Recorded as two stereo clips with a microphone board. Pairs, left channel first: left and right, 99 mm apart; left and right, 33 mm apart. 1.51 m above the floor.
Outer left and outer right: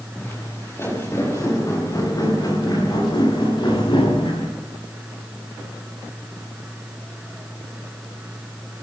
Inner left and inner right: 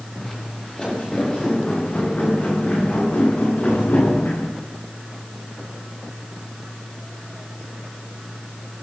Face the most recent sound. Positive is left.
turn(degrees=60)  # may be behind; listen again after turning